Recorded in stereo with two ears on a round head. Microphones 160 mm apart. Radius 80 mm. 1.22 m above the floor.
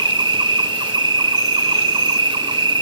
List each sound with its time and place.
0.0 s an insect: 25° right (ahead or behind), 1.2 m